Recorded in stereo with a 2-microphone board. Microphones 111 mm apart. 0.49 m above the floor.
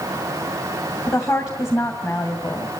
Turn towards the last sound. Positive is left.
turn(degrees=25)  # may be behind; listen again after turning